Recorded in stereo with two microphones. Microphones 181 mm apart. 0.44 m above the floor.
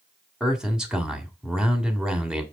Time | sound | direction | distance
0.4 | a man speaking | 5° right (ahead or behind) | 1.6 m